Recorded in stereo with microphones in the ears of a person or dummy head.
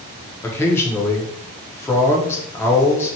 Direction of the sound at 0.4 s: 10° left (ahead or behind).